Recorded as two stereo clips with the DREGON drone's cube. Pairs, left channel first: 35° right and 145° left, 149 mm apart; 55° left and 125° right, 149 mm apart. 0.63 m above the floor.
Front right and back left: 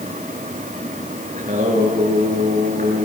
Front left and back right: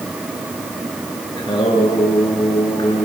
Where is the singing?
115° left, 8 m.